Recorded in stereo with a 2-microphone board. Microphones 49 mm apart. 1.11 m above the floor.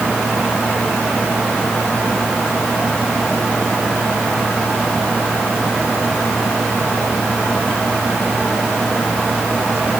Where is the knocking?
I don't hear knocking.